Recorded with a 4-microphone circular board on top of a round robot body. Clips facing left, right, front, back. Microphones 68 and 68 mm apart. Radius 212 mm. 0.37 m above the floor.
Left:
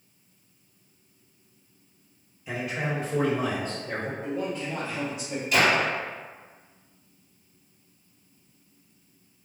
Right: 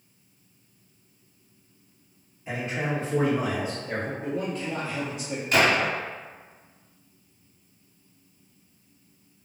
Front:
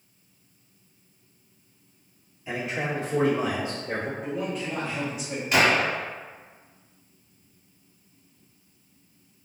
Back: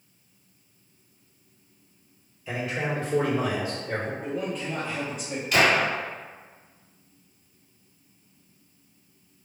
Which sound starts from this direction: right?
A man speaking, at 4.2 s.